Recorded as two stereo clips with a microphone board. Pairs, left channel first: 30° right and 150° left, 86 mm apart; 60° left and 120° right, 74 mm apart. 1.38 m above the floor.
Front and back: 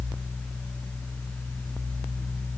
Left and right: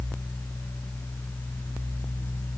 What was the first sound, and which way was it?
Only background noise.